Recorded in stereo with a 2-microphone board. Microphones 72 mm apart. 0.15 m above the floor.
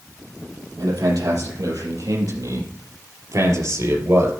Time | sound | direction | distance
0.8 | a man speaking | 70° right (ahead or behind) | 4.5 m